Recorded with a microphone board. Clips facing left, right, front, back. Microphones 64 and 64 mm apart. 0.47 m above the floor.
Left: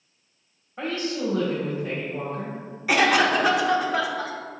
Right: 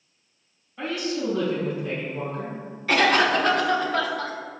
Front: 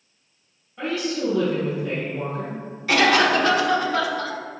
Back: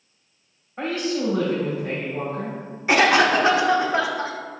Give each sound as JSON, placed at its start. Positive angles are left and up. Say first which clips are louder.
{"t": 0.8, "sound": "a woman speaking", "louder": "even, back 1 dB", "azimuth_deg": 135, "distance_m": 2.5}
{"t": 2.9, "sound": "a cough", "louder": "even, back 1 dB", "azimuth_deg": 155, "distance_m": 1.0}